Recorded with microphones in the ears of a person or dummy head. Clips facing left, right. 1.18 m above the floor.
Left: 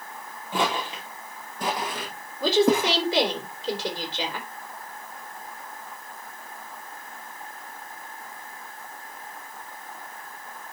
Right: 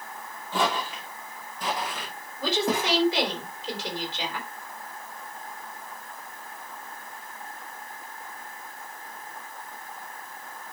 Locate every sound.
0.5 s footsteps: 10° left (ahead or behind), 1.6 m; by 3.0 s 60° left (ahead or behind), 3 m
2.4 s a woman speaking: 85° left, 3.5 m